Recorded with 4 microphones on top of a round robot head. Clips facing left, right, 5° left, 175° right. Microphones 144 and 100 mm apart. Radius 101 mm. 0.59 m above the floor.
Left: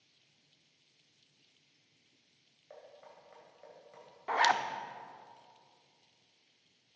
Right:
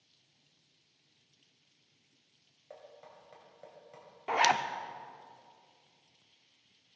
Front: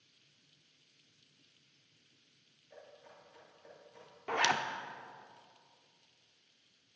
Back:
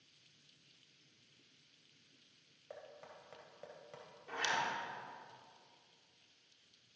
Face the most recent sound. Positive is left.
turn(degrees=-15)